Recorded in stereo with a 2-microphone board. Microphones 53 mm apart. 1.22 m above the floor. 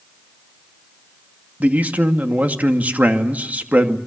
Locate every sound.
1.6 s a man speaking: 30° right (ahead or behind), 2.5 m